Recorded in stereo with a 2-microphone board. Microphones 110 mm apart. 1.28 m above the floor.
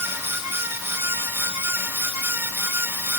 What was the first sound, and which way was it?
Only background noise.